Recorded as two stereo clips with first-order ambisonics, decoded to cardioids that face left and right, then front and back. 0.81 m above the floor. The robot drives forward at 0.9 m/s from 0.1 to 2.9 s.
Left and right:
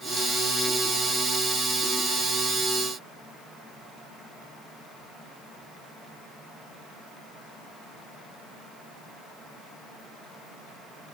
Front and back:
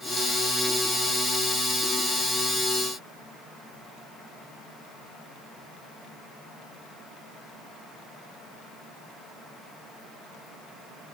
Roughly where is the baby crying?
No baby crying in this recording.